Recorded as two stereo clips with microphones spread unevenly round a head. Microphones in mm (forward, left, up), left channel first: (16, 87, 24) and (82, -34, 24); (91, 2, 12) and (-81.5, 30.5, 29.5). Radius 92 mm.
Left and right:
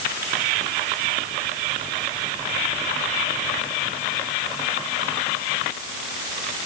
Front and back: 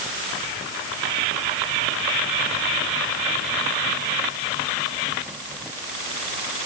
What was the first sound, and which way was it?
Only background noise.